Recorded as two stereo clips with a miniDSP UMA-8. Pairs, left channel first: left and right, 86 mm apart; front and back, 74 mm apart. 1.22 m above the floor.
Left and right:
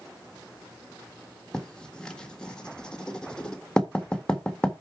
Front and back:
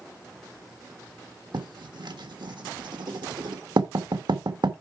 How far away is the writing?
About 1.5 m.